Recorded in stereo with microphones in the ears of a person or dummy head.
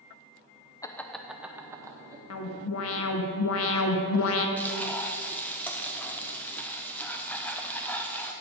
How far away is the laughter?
About 0.5 m.